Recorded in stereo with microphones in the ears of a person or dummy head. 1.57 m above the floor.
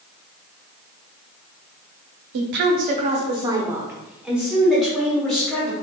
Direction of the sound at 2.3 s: 75° right (ahead or behind).